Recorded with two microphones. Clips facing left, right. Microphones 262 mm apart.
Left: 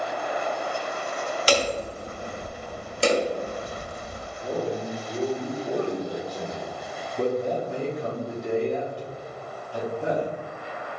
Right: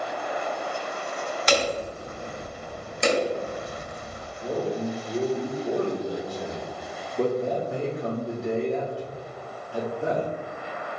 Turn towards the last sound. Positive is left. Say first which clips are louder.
# right 1 dB
turn(degrees=-5)  # may be behind; listen again after turning